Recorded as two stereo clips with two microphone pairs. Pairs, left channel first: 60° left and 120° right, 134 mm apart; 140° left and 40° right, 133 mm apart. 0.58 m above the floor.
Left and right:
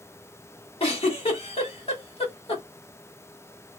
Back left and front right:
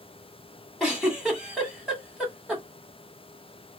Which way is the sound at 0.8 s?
40° left.